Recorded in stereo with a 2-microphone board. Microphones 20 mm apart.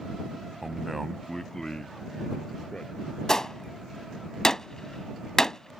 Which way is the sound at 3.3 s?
30° left (ahead or behind).